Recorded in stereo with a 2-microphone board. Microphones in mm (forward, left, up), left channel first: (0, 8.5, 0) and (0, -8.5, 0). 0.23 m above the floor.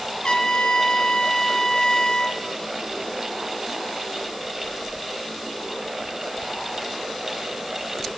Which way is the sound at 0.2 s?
60° left (ahead or behind).